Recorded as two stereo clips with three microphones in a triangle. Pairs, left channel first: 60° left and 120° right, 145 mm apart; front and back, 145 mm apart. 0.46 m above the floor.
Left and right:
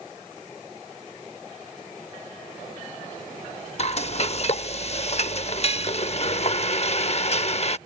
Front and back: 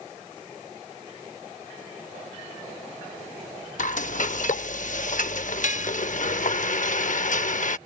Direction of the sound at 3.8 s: 20° left.